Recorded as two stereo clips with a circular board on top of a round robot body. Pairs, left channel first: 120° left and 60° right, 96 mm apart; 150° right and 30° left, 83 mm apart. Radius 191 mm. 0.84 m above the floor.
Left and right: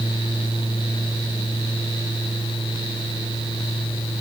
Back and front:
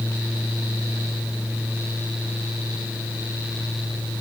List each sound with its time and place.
Only background noise.